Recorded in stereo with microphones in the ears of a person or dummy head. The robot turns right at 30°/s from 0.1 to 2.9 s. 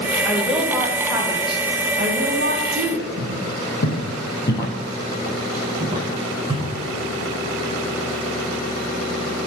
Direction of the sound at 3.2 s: 55° left (ahead or behind).